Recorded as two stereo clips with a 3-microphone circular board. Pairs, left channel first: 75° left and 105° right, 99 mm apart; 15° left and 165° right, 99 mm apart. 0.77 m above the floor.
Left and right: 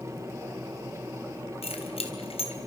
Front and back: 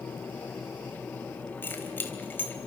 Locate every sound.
1.6 s keys jangling: 85° left, 3.5 m